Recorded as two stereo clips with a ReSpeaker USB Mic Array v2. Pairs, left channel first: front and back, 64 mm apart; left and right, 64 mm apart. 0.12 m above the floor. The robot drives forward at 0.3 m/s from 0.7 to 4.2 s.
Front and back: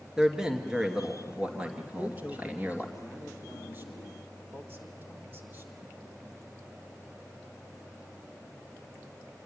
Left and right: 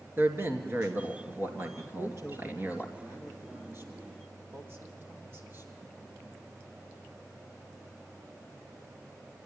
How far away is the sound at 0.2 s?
About 1.7 m.